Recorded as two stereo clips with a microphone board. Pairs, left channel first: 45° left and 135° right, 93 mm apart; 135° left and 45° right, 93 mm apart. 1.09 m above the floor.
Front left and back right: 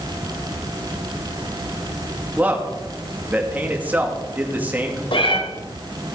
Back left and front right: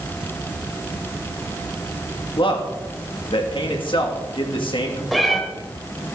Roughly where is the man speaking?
Behind left.